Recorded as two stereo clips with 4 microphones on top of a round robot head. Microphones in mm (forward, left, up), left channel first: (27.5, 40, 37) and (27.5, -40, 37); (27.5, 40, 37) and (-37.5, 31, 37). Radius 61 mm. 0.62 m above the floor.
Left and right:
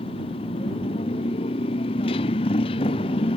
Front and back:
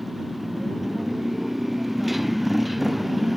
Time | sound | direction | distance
0.0 | a motorcycle | 100° left | ?